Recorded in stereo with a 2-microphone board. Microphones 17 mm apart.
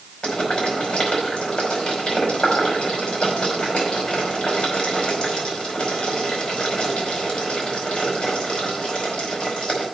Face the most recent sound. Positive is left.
turn(degrees=80)